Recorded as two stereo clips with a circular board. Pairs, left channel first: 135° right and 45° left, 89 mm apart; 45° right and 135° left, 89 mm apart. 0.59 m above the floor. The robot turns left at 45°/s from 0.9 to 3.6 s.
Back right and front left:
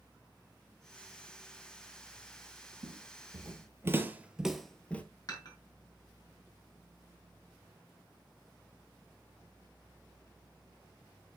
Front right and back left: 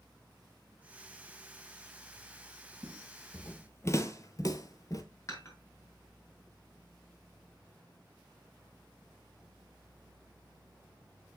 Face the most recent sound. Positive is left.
turn(degrees=-95)